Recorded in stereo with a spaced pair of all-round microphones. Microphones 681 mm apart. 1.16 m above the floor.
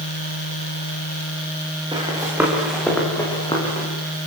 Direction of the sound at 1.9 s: 5° right (ahead or behind).